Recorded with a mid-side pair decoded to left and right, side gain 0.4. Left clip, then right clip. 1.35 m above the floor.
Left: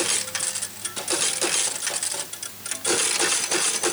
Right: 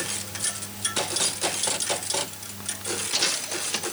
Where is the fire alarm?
I don't hear a fire alarm.